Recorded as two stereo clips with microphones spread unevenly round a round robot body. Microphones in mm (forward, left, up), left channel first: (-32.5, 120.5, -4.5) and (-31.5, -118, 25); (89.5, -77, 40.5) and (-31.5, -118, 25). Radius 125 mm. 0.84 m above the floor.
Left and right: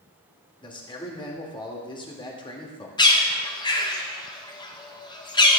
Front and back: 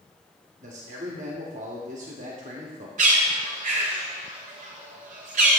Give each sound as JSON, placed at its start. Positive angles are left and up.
{"t": 0.6, "sound": "a man speaking", "azimuth_deg": 160, "distance_m": 1.9}
{"t": 3.0, "sound": "a bird", "azimuth_deg": 160, "distance_m": 1.2}